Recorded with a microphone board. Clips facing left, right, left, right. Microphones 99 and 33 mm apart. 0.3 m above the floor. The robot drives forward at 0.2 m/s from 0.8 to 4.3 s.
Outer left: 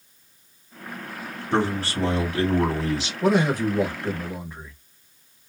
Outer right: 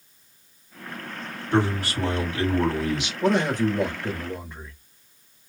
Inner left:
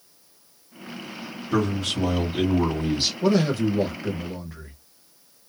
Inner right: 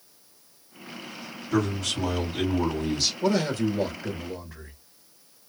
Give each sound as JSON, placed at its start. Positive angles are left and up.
{"t": 1.5, "sound": "a man speaking", "side_deg": 35, "distance_m": 1.5}
{"t": 3.2, "sound": "a man speaking", "side_deg": 10, "distance_m": 1.0}